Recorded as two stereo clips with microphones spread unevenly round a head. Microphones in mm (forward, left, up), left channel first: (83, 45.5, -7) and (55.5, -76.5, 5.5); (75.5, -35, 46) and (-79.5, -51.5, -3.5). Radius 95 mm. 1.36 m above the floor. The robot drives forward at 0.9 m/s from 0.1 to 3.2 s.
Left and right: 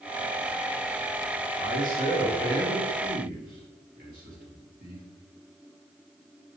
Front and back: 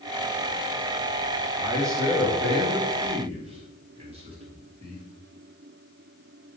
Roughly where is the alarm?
I don't hear an alarm.